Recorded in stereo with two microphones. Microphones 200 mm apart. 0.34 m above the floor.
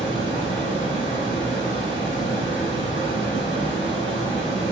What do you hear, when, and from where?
0.0 s running water: 65° left (ahead or behind), 0.9 m